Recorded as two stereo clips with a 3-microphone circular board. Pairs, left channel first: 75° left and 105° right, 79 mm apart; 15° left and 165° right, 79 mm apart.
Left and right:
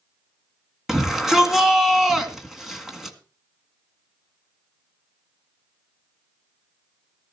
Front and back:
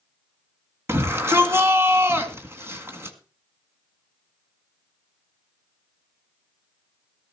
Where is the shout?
175° left, 1.8 m.